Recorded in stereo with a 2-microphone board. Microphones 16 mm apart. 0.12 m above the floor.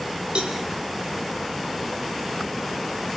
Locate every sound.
0.3 s a cowbell: 75° right (ahead or behind), 3.5 m